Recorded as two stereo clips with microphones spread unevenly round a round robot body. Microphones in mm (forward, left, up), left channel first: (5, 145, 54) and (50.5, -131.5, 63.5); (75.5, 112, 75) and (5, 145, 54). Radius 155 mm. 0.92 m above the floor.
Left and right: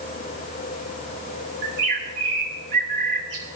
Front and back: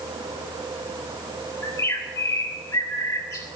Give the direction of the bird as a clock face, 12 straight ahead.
3 o'clock.